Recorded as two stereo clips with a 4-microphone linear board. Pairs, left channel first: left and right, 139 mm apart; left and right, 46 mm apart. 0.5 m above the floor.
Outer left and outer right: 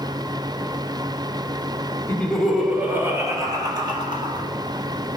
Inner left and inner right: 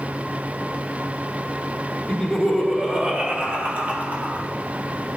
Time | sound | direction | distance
2.1 | laughter | 15° left (ahead or behind) | 1.3 m